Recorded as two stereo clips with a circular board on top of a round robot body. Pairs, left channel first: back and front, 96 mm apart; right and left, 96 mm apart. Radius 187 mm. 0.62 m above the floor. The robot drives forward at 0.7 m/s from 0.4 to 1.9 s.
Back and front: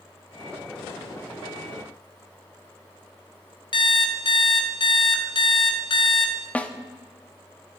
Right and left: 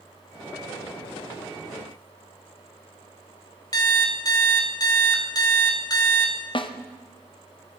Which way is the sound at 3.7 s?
140° right.